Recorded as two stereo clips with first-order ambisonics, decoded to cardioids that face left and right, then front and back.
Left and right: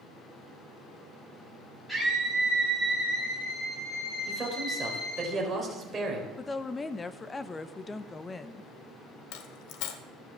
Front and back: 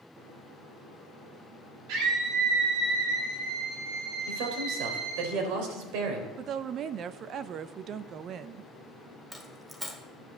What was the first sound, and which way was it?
A scream, 170° left.